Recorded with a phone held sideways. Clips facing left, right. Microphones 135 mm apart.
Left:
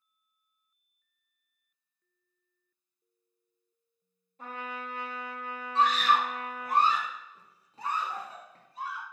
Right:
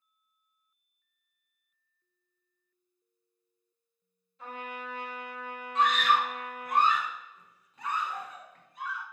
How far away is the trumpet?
About 0.9 m.